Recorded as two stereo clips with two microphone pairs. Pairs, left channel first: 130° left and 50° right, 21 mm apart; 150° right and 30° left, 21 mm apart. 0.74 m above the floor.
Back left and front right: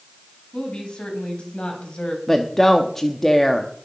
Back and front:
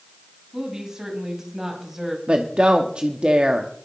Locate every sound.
0.5 s a woman speaking: 95° left, 4.5 m; by 2.2 s 105° left, 3.5 m
2.3 s a woman speaking: 60° left, 1.1 m